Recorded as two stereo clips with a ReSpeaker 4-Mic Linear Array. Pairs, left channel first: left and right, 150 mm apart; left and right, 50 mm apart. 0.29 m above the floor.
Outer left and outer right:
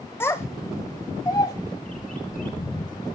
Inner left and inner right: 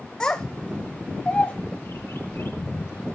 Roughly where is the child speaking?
Centre.